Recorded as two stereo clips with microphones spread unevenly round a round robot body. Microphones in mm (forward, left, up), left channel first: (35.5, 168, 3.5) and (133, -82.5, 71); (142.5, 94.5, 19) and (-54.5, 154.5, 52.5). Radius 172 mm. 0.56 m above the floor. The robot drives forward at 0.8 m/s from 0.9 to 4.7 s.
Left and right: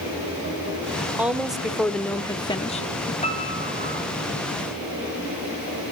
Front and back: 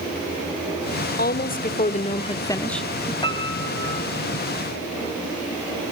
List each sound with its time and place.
1.2 s a woman speaking: 20° left, 1.8 m; by 3.1 s 85° left, 0.8 m
3.2 s a piano: 45° left, 5 m; by 4.0 s 55° left, 4.5 m